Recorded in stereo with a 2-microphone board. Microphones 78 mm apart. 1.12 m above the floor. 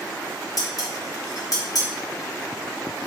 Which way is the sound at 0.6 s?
50° left (ahead or behind).